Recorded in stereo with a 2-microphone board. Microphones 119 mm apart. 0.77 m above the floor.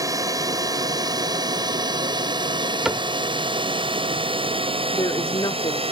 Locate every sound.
0.0 s a drone: 30° right (ahead or behind); by 5.9 s 50° right (ahead or behind)
2.9 s a cupboard door: 5° right (ahead or behind)
4.9 s a woman speaking: 40° left (ahead or behind)